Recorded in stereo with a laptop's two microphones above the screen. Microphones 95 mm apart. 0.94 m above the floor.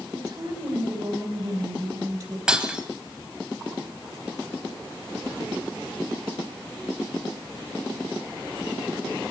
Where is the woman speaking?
50° right (ahead or behind), 4 m.